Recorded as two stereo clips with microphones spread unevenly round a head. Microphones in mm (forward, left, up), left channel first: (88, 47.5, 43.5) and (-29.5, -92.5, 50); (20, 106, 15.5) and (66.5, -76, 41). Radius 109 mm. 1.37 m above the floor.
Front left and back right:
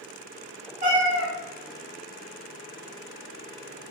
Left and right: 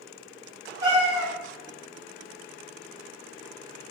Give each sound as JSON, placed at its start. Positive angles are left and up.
{"t": 0.8, "sound": "a cat meowing", "azimuth_deg": -130, "distance_m": 0.9}